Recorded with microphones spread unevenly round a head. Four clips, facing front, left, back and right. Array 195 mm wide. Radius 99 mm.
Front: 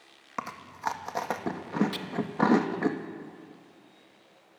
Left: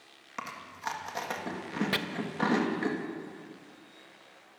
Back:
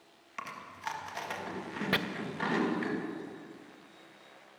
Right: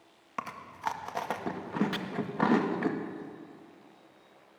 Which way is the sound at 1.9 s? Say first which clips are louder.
Left 4 dB, back 7 dB; 150° left.